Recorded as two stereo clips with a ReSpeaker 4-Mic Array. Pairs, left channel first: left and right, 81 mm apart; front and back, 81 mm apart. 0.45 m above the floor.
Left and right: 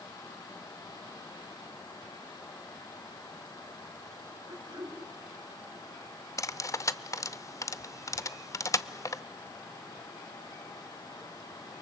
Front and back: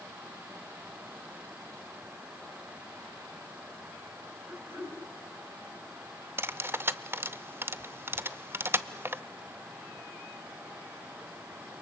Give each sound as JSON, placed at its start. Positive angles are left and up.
{"t": 4.5, "sound": "throat clearing", "azimuth_deg": -125, "distance_m": 6.0}
{"t": 6.4, "sound": "cutlery clinking", "azimuth_deg": 125, "distance_m": 0.6}